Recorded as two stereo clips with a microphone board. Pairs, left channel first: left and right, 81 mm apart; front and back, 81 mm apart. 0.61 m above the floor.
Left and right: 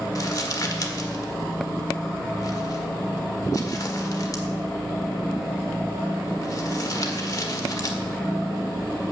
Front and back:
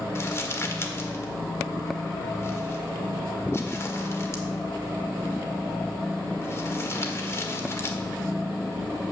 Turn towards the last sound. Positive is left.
turn(degrees=50)